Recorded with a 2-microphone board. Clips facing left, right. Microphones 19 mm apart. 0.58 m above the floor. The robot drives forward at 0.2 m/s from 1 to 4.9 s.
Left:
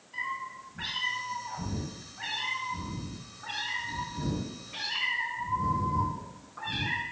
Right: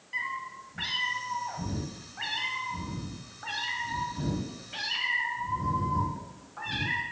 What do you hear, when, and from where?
0.1 s a cat meowing: 80° right, 1.8 m; by 7.0 s 60° right (ahead or behind), 2 m